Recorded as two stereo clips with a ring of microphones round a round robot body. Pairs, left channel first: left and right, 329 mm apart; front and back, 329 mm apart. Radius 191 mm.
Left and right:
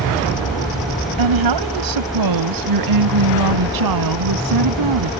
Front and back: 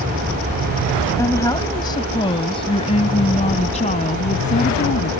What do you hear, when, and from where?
1.2 s a woman speaking: 80° right; by 5.1 s 70° right